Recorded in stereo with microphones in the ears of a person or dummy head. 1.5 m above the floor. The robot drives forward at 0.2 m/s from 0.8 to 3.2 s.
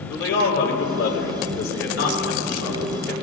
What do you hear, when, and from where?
0.1 s a man speaking: 80° left, 5 m; by 3.1 s 85° left, 5 m